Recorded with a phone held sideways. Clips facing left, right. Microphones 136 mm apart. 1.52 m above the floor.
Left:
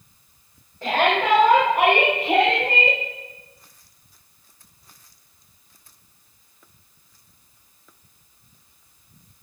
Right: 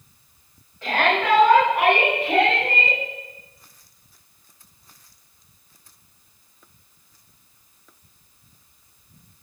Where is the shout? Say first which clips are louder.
Left 1 dB; 35° left (ahead or behind), 9.5 m; by 3.0 s 30° left (ahead or behind), 10.5 m.